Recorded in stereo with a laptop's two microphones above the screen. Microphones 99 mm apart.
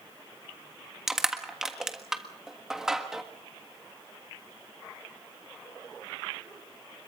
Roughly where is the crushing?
Centre.